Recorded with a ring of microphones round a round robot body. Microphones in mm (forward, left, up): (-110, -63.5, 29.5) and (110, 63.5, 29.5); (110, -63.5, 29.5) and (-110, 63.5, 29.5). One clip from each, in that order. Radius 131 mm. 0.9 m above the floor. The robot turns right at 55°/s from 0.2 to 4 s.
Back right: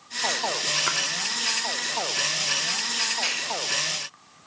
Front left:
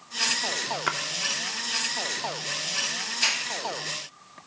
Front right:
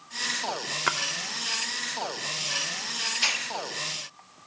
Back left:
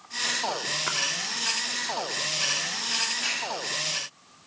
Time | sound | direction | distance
0.9 | a splash | 50° right | 0.6 m
3.2 | a hiss | 45° right | 1.8 m